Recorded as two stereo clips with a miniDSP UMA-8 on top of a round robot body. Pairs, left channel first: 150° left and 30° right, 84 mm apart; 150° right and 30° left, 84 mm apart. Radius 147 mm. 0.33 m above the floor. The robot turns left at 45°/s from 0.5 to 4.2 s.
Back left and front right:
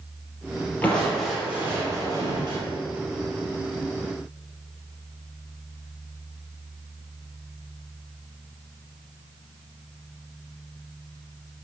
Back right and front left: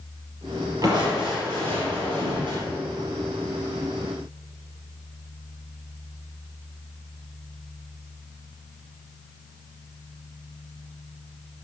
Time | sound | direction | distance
0.8 | crushing | 75° left | 4 m